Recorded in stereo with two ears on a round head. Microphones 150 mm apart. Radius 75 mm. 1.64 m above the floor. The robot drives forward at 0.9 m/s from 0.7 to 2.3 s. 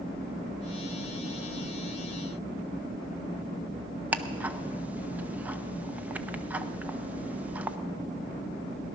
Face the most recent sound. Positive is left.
turn(degrees=-10)  # may be behind; listen again after turning